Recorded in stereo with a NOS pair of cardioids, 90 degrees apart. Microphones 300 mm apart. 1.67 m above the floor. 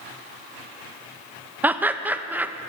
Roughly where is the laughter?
Ahead.